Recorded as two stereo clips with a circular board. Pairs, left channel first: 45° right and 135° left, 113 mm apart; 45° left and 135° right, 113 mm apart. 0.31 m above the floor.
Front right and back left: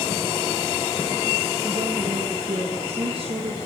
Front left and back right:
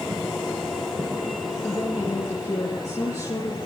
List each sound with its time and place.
1.6 s a woman speaking: 105° left, 4.5 m; by 3.6 s 100° left, 5.5 m